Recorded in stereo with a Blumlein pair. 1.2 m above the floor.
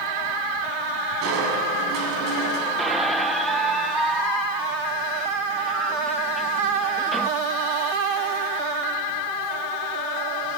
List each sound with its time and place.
1.2 s crushing: 35° right, 7 m
2.8 s a squeak: 5° right, 1.0 m